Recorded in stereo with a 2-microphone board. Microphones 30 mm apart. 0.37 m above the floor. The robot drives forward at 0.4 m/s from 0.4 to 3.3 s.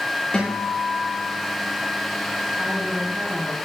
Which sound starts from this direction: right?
A woman speaking, at 2.6 s.